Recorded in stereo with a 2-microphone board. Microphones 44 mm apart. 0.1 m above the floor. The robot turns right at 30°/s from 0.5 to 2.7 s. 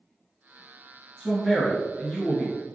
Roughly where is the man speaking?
Centre.